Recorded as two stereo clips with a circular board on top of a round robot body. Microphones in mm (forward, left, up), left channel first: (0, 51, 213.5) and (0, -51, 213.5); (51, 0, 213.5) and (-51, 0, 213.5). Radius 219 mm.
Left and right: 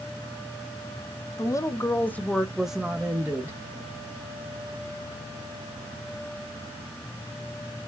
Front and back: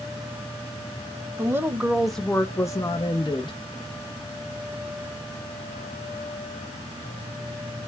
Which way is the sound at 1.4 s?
130° left.